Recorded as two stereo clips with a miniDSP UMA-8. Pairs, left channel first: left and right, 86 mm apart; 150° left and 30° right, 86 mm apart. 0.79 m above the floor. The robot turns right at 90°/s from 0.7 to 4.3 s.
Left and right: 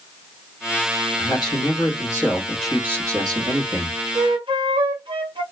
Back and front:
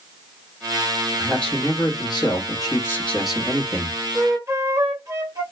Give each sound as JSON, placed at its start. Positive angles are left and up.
{"t": 1.2, "sound": "a man speaking", "azimuth_deg": 55, "distance_m": 1.3}
{"t": 4.2, "sound": "a flute", "azimuth_deg": -95, "distance_m": 0.9}